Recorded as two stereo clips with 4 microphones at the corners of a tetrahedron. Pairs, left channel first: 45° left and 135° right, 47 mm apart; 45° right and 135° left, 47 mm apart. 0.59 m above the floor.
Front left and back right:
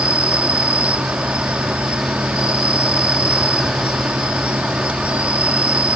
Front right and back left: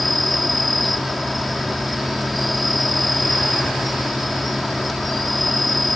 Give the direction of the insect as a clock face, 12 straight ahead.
4 o'clock.